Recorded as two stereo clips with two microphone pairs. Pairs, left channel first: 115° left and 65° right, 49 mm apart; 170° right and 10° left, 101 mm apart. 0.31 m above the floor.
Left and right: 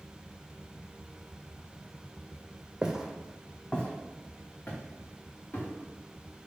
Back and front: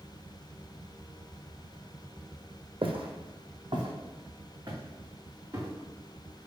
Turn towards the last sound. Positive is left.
turn(degrees=75)